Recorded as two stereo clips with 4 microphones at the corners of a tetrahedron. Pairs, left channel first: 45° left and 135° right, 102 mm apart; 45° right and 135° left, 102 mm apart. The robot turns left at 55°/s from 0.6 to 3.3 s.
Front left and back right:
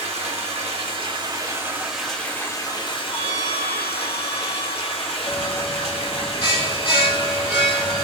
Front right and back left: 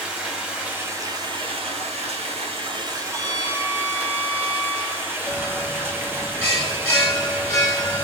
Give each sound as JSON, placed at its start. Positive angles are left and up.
{"t": 0.0, "sound": "running water", "azimuth_deg": -145, "distance_m": 0.8}
{"t": 3.1, "sound": "a violin", "azimuth_deg": -110, "distance_m": 1.1}
{"t": 5.3, "sound": "a bell", "azimuth_deg": 15, "distance_m": 1.4}